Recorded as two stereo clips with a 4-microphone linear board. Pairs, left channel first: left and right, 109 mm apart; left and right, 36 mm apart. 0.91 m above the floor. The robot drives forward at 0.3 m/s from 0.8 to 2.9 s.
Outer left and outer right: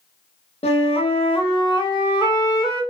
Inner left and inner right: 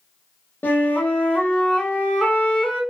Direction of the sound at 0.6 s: 65° left (ahead or behind).